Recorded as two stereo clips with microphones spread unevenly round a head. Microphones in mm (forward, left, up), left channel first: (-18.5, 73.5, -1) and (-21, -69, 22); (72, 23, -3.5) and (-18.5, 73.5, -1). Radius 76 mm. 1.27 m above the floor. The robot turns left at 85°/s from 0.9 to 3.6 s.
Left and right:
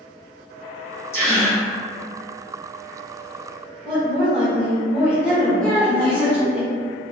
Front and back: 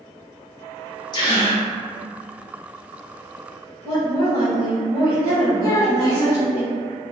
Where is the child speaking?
10° right, 0.6 m.